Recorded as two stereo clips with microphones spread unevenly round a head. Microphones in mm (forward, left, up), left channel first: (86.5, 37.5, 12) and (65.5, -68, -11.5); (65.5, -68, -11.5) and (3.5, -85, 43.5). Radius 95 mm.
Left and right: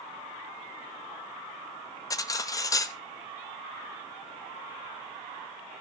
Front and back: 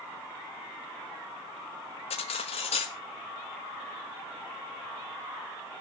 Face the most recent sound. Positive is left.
turn(degrees=65)